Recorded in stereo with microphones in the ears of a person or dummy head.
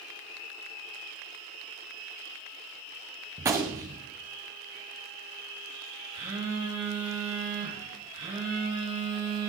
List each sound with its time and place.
3.4 s a gunshot: 10° right (ahead or behind), 1.4 m
6.1 s a phone buzzing: 30° right (ahead or behind), 4.5 m